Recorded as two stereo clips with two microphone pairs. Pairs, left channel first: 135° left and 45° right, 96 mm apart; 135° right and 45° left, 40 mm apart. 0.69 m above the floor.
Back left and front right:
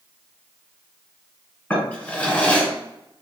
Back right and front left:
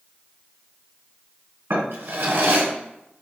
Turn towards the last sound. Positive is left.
turn(degrees=60)